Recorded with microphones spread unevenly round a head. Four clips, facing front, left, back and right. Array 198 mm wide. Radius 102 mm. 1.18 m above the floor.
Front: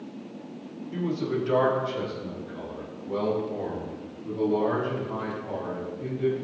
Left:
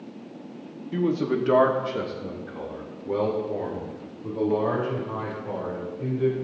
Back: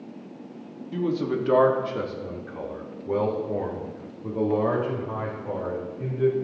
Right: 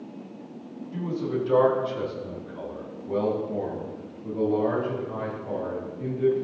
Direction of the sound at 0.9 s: 95° left.